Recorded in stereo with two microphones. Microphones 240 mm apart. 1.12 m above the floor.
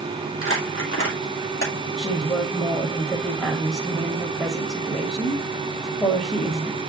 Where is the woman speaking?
Centre (ahead or behind), 2.0 m.